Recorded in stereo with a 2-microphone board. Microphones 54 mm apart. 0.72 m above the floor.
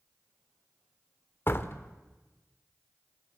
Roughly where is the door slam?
Left.